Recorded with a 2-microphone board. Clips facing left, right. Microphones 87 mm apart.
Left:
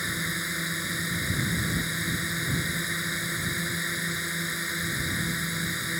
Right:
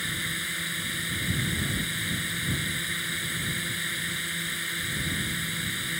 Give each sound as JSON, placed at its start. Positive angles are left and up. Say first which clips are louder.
{"t": 0.0, "sound": "a drone", "louder": "left 2 dB", "side_deg": 20}